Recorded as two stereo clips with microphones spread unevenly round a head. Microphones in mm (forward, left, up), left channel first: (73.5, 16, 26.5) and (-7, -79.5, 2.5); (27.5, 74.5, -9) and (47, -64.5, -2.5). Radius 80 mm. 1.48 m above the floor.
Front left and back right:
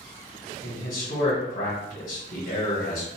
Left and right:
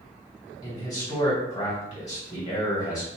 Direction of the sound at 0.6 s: 40° left.